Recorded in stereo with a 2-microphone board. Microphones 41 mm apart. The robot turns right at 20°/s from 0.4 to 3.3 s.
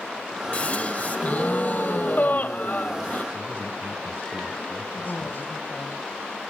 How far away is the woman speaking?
About 2 m.